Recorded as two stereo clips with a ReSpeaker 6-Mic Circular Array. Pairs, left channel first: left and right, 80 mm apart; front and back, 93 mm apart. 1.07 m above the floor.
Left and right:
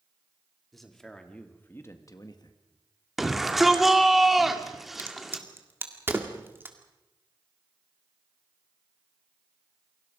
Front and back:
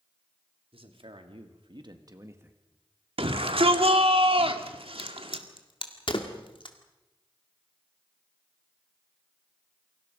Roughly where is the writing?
I don't hear writing.